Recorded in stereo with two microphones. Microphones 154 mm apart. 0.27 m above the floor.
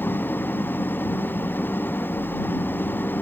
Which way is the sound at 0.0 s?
15° left (ahead or behind).